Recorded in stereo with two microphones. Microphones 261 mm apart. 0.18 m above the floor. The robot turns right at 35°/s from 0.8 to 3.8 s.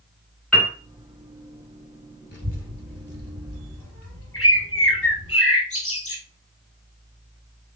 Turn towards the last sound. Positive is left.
turn(degrees=55)  # may be behind; listen again after turning